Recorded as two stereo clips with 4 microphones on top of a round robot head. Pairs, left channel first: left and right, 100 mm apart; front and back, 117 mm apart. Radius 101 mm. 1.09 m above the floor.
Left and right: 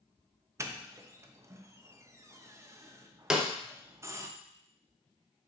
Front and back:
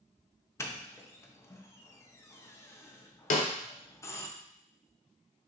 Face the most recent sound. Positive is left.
turn(degrees=-5)